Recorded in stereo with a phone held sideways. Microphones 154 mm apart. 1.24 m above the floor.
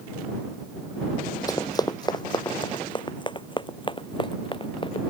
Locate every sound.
1.5 s running footsteps: 20° left (ahead or behind); by 5.1 s 30° left (ahead or behind)